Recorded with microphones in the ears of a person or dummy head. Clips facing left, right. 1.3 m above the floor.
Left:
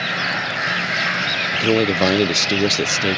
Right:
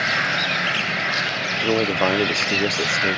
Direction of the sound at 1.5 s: 20° left (ahead or behind).